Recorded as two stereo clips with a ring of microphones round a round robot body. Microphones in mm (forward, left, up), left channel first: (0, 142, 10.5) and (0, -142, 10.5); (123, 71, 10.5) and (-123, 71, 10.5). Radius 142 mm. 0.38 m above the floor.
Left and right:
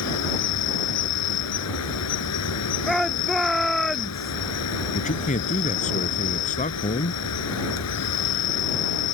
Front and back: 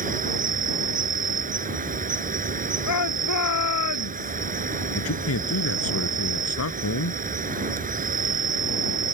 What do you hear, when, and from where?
0.0 s an insect: 125° left
2.9 s a shout: straight ahead
5.0 s a man speaking: 25° left